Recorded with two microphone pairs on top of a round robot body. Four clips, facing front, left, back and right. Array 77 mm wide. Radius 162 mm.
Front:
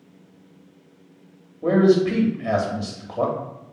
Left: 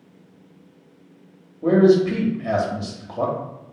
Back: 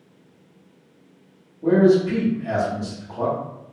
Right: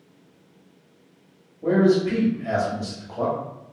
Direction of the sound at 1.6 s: 35° left.